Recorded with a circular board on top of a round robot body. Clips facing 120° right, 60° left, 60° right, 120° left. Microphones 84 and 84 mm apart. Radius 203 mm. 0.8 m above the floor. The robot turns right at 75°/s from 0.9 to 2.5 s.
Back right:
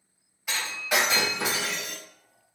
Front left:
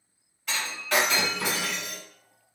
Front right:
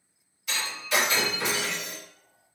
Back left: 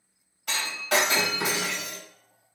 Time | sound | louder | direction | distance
0.5 | breaking glass | even, back left 2 dB | 160° left | 1.9 m